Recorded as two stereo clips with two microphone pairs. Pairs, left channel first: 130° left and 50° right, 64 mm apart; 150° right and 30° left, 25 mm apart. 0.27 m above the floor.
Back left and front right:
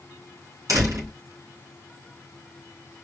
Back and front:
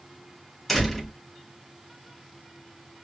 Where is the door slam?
65° right, 2.5 m.